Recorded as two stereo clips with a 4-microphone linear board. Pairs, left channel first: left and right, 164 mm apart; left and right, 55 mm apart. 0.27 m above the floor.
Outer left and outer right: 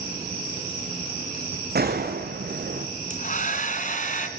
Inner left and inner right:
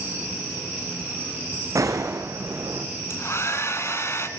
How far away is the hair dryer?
About 2.5 m.